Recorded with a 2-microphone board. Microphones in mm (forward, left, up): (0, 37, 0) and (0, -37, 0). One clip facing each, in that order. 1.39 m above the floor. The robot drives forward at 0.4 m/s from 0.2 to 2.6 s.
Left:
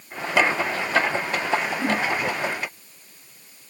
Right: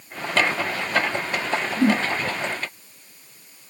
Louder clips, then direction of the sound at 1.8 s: Right 4 dB; 80° right.